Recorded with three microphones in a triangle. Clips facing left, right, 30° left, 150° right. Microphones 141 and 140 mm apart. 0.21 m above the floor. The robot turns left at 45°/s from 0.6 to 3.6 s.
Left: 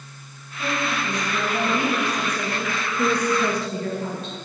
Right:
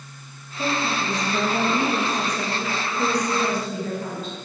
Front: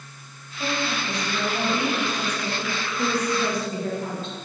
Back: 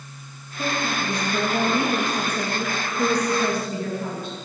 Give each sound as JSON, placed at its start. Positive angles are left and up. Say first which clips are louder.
{"t": 0.6, "sound": "a woman speaking", "louder": "right 1 dB, back 2 dB", "azimuth_deg": -130, "distance_m": 3.5}